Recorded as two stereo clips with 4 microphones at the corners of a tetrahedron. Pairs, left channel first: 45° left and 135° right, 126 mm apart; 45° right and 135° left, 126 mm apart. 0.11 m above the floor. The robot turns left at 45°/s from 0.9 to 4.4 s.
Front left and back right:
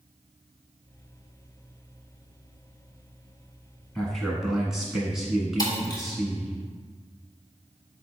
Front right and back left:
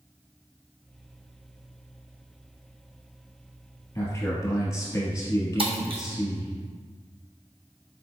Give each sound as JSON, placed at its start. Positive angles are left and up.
{"t": 4.0, "sound": "a man speaking", "azimuth_deg": -30, "distance_m": 1.2}
{"t": 5.6, "sound": "breaking glass", "azimuth_deg": 100, "distance_m": 1.0}